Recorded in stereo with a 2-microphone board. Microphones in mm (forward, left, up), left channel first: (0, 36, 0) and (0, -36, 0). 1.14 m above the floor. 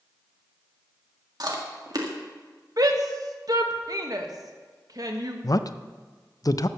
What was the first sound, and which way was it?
Chewing, 60° right (ahead or behind).